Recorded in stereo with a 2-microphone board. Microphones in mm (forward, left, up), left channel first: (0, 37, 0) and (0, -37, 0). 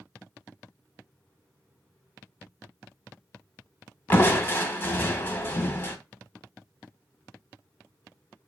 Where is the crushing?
30° left (ahead or behind), 0.5 m.